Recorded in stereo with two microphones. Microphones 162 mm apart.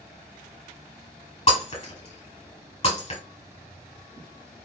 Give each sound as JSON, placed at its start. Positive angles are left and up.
{"t": 1.5, "sound": "breaking glass", "side_deg": 40, "distance_m": 1.6}